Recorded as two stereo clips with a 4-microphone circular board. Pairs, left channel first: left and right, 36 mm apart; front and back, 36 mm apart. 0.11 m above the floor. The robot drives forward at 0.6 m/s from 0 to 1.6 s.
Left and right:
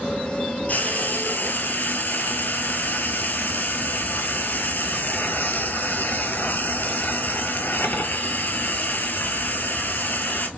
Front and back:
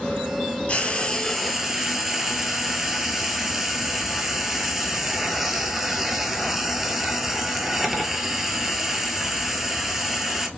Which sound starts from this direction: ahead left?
Frying, at 0.7 s.